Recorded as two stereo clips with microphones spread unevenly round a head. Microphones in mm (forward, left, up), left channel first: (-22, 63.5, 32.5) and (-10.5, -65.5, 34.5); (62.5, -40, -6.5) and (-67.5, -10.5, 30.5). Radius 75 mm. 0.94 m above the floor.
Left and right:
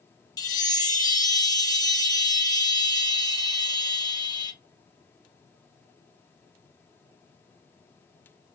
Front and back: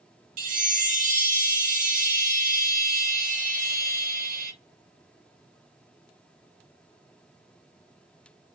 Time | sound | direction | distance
0.4 | a chime | 140° left | 0.6 m